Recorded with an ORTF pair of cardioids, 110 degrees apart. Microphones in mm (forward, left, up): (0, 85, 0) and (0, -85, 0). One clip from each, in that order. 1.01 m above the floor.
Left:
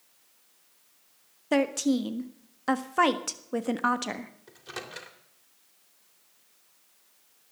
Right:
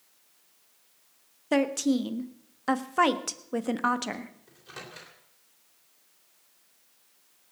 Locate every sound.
1.5 s a woman speaking: straight ahead, 1.3 m
4.5 s a microwave: 35° left, 3 m